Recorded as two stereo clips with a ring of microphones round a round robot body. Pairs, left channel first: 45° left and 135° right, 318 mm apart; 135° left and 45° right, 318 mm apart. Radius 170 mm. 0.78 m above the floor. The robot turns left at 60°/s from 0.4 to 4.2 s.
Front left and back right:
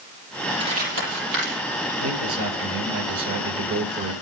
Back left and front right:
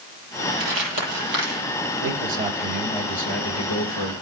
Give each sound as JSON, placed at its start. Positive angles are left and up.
{"t": 0.6, "sound": "crumpling", "azimuth_deg": -60, "distance_m": 8.5}
{"t": 2.0, "sound": "a man speaking", "azimuth_deg": -90, "distance_m": 3.0}